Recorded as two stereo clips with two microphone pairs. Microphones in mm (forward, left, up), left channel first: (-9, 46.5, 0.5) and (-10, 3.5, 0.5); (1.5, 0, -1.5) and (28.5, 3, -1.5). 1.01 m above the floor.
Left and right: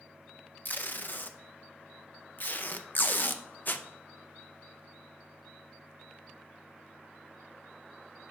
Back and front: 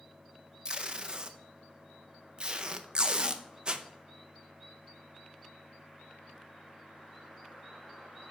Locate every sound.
0.7 s tape being pulled: 60° left, 0.5 m